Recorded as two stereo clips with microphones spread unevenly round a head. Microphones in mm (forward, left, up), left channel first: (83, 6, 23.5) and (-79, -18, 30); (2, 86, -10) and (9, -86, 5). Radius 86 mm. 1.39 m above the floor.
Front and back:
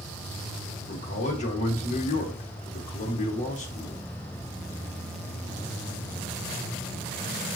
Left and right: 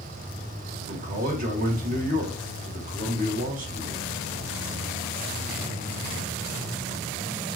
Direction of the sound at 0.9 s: 40° right.